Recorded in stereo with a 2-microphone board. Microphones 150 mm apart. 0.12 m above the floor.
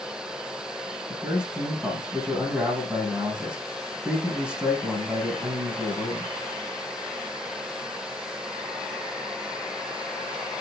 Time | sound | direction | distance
1.1 | a man speaking | 10° right (ahead or behind) | 5 m